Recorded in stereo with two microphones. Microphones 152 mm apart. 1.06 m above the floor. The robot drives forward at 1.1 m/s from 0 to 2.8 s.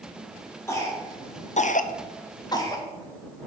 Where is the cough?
20° left (ahead or behind), 1.3 m.